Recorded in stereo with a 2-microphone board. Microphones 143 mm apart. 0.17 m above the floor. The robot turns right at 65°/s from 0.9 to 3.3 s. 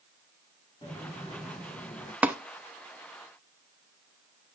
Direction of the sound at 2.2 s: 10° right (ahead or behind).